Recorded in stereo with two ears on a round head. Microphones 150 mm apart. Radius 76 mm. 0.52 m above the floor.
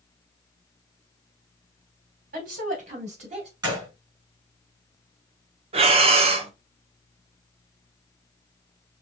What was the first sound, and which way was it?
A woman speaking, 50° right (ahead or behind).